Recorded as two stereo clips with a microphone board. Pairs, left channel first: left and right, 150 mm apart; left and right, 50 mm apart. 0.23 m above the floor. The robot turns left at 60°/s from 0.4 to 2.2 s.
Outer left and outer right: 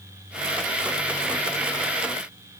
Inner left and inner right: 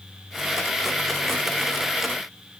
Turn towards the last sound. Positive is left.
No sound to turn to.